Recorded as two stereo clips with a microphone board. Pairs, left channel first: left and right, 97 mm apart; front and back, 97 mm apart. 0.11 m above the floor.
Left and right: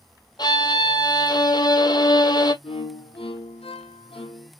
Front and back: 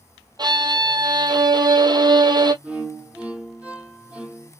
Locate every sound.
0.4 s a violin: 135° left, 0.8 m
2.6 s a violin: 105° left, 1.0 m